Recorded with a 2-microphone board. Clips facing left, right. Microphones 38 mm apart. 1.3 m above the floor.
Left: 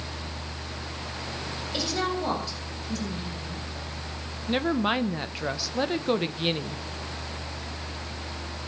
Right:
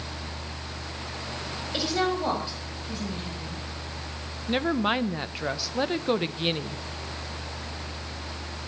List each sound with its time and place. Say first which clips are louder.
1.7 s a woman speaking: right 2 dB; 10° right (ahead or behind), 7.5 m; by 3.6 s 20° right (ahead or behind), 8 m
4.5 s a woman speaking: even; centre (ahead or behind), 1.1 m